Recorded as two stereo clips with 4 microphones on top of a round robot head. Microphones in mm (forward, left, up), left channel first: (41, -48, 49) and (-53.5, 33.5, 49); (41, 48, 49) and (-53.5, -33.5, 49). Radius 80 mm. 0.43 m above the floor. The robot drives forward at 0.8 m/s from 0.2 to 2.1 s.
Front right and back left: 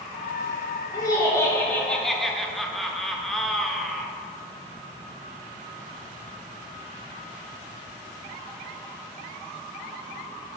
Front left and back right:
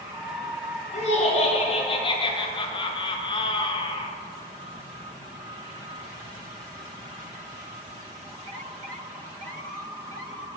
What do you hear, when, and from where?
0.9 s laughter: 15° left, 1.6 m; by 4.1 s 45° left, 0.9 m